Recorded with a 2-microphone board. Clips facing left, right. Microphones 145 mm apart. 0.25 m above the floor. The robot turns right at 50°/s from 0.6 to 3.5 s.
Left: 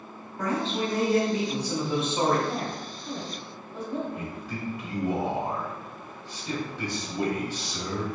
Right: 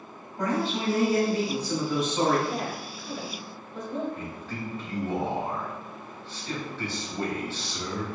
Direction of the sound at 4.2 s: 15° left (ahead or behind).